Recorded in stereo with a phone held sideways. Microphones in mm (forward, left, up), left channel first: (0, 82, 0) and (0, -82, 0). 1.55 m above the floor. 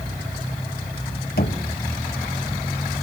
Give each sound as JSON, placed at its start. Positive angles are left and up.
{"t": 1.4, "sound": "knocking", "side_deg": 75, "distance_m": 1.8}